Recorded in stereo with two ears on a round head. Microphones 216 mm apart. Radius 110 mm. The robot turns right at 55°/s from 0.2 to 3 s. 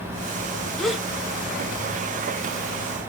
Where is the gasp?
5° left (ahead or behind), 0.8 m; by 1.1 s 10° right (ahead or behind), 0.8 m.